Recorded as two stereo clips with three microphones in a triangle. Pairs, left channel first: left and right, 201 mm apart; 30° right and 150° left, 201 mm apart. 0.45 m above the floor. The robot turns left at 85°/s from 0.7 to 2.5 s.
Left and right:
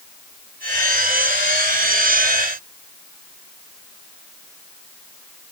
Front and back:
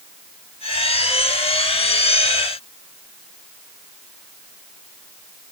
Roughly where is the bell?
I don't hear a bell.